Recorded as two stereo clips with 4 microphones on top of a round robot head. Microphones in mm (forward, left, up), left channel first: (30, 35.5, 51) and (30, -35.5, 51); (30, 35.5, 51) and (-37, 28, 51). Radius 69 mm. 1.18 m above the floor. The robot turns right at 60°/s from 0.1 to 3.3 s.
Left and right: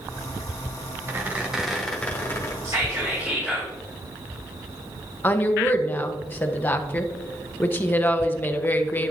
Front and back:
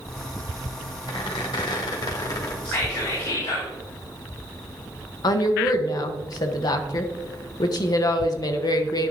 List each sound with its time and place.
1.1 s a squeak: 40° right, 1.6 m; by 2.5 s 50° left, 1.6 m
2.6 s whispering: 55° right, 2.5 m; by 3.7 s 15° right, 2.5 m
5.2 s a woman speaking: 30° left, 1.2 m